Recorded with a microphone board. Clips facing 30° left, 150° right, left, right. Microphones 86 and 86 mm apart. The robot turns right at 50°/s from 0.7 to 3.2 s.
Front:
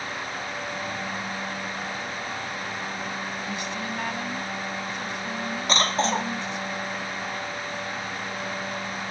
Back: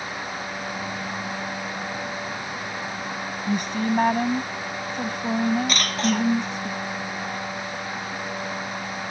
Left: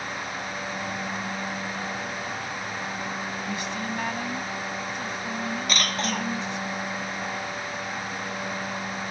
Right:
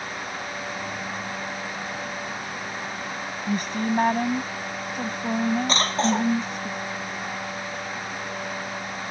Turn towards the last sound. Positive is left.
turn(degrees=-30)